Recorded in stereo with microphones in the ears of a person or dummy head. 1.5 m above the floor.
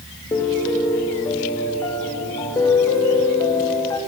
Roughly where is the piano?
Centre.